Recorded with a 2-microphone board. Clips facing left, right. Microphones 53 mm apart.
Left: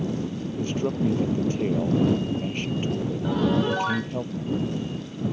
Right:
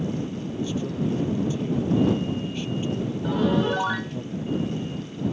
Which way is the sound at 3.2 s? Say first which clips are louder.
Right 1 dB; centre (ahead or behind).